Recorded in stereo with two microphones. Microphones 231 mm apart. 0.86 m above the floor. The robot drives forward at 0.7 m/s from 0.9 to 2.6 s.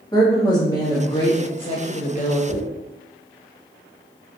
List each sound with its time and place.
0.1 s a woman speaking: 15° left (ahead or behind), 1.4 m; by 2.4 s 35° left (ahead or behind), 0.7 m
2.5 s a dropped coin: 55° left (ahead or behind), 1.1 m